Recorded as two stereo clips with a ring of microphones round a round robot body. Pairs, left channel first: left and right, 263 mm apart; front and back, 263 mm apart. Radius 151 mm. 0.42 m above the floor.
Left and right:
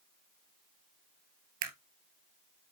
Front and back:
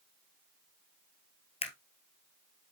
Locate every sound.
1.6 s a camera shutter: 70° right, 1.5 m